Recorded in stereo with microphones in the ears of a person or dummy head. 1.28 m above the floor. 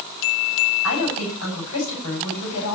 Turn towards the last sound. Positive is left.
turn(degrees=85)